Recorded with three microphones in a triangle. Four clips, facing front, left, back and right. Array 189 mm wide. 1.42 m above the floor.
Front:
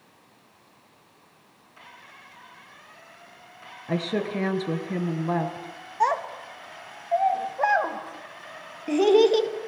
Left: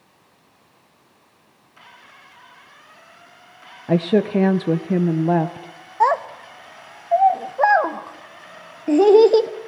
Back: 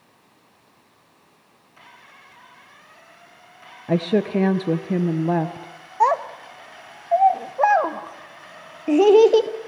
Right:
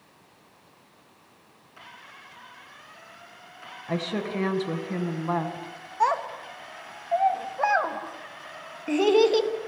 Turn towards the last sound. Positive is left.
turn(degrees=130)